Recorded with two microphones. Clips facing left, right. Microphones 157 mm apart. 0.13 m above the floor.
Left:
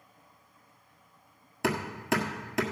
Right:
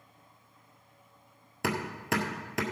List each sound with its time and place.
1.6 s hammering: centre (ahead or behind), 1.5 m